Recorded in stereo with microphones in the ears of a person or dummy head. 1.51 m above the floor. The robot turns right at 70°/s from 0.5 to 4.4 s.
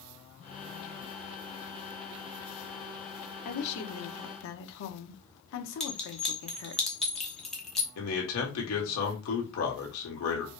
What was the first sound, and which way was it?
A woman speaking, 45° left.